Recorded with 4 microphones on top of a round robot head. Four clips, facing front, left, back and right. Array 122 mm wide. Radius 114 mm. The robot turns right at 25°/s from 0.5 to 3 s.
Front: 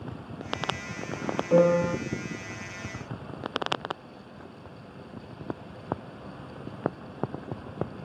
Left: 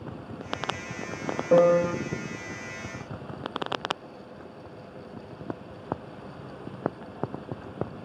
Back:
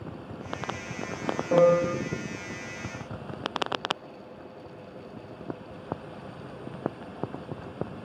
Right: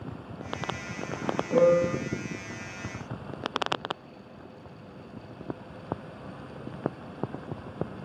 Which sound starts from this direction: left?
A piano, at 1.5 s.